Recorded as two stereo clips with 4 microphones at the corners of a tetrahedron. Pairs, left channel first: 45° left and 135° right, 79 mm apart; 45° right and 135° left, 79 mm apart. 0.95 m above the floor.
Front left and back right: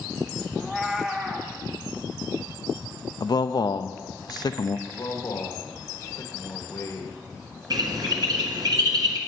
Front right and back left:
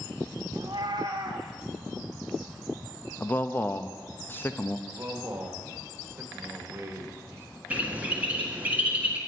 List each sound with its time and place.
0.6 s a cat meowing: 140° left, 0.9 m
3.2 s a man speaking: 15° left, 0.5 m
4.9 s a man speaking: 85° left, 1.5 m
7.7 s a bird: 155° right, 1.7 m